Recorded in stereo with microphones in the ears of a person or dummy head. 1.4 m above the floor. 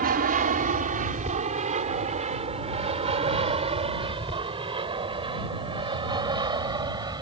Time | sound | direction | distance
0.0 | an aircraft | 45° right (ahead or behind) | ?